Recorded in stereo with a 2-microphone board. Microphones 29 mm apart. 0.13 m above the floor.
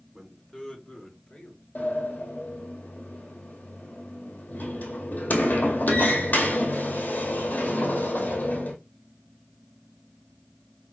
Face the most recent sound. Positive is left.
turn(degrees=70)  # may be behind; listen again after turning